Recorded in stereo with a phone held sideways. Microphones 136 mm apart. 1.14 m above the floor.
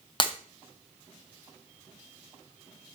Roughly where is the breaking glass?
Left.